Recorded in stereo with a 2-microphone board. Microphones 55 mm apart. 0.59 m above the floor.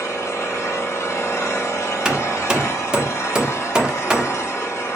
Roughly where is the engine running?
Left.